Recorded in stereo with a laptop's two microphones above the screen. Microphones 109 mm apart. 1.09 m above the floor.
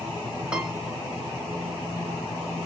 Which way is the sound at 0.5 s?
10° right (ahead or behind).